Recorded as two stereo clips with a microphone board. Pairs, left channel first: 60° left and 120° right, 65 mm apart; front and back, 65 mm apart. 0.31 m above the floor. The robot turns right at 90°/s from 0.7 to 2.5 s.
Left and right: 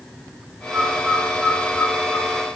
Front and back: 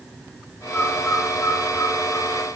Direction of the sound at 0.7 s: 60° right.